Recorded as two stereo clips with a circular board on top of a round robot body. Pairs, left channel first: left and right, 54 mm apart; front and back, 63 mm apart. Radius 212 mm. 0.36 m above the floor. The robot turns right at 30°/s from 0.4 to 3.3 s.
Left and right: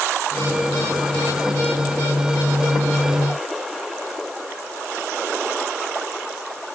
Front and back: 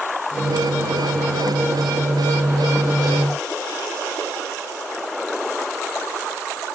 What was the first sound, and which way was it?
Only background noise.